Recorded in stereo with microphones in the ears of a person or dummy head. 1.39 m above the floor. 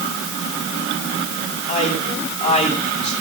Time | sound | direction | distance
1.7 | a man speaking | 35° left (ahead or behind) | 7 m